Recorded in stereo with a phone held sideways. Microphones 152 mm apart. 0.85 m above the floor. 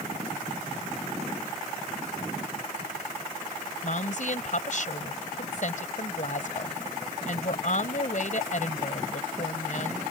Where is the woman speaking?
55° left (ahead or behind).